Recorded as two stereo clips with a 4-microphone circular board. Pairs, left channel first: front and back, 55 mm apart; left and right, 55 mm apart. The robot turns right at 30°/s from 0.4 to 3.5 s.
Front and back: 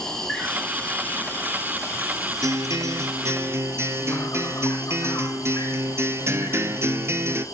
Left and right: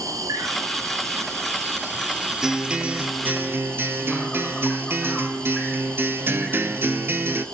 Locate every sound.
0.0 s an insect: 80° right, 2.5 m; by 7.5 s 10° left, 2.5 m
2.4 s a guitar: 170° right, 0.9 m; by 7.5 s 140° right, 0.9 m